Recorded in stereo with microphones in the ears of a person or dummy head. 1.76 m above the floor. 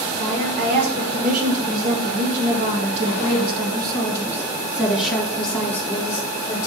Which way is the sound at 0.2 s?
60° right (ahead or behind).